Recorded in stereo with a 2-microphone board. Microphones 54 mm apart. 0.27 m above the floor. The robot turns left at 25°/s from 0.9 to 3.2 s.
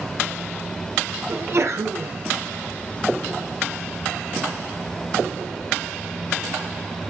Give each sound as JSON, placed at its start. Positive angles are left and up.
{"t": 1.3, "sound": "a sneeze", "side_deg": -55, "distance_m": 3.0}